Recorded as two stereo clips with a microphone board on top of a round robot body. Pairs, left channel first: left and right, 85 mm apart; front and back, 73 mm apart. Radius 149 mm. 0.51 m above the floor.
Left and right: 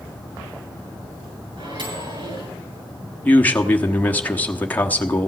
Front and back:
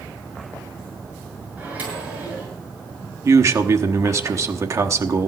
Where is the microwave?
110° right, 7 m.